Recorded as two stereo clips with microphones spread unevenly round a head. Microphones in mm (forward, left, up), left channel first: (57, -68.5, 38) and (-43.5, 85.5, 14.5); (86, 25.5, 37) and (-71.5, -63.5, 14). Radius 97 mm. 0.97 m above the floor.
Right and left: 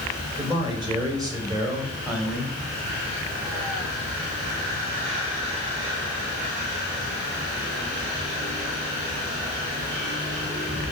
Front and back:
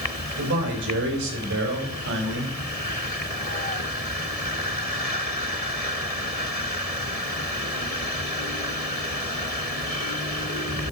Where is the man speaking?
170° right, 5 m; by 2.5 s 150° right, 3 m.